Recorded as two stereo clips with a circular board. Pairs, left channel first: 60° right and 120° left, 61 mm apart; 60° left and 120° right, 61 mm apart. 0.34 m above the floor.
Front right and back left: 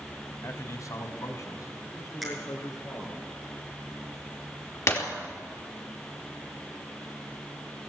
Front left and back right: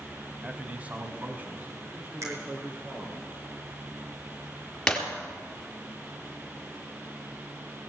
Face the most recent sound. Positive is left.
turn(degrees=-20)